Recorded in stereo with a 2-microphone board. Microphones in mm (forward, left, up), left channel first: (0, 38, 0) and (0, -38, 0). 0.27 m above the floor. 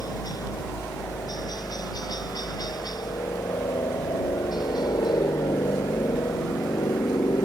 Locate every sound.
0.0 s a helicopter: 60° left (ahead or behind); by 7.4 s 70° left (ahead or behind)